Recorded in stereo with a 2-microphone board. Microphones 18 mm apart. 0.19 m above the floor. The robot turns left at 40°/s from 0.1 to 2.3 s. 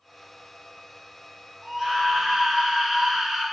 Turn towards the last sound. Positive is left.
turn(degrees=-40)  # may be behind; listen again after turning